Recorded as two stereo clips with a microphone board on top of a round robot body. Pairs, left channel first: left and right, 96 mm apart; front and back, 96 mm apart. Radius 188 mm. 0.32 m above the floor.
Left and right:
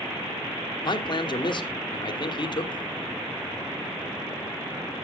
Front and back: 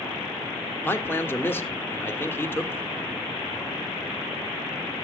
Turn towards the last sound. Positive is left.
turn(degrees=65)